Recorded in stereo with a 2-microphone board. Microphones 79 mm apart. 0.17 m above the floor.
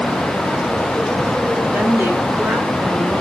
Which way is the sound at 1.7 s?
25° right (ahead or behind).